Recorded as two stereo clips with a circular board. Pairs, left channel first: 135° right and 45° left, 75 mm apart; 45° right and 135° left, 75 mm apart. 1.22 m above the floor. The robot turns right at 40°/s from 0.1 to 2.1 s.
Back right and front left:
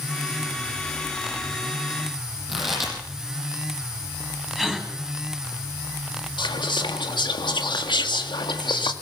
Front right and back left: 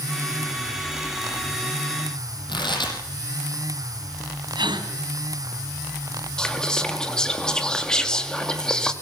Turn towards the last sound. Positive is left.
turn(degrees=-125)